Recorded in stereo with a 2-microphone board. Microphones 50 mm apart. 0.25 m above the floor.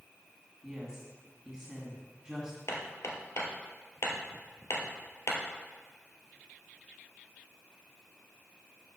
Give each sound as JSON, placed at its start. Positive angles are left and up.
{"t": 0.6, "sound": "a woman speaking", "side_deg": -15, "distance_m": 2.0}
{"t": 2.7, "sound": "hammering", "side_deg": 60, "distance_m": 1.5}